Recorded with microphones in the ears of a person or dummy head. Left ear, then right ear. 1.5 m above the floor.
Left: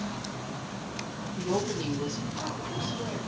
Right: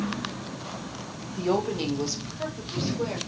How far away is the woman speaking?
About 1.2 m.